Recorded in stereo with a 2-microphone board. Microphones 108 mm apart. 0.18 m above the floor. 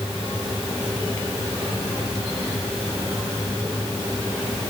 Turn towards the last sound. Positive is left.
No sound to turn to.